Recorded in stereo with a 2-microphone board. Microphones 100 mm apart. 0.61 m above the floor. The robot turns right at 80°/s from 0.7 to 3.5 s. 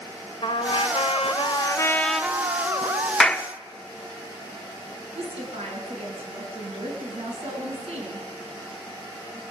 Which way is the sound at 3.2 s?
5° left (ahead or behind).